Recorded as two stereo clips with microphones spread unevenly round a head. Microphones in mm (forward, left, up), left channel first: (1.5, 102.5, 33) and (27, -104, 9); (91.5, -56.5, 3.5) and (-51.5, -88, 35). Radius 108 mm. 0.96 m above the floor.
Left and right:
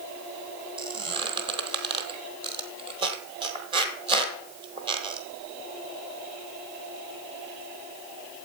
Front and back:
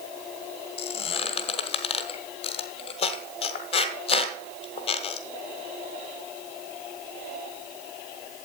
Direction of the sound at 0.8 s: 25° right.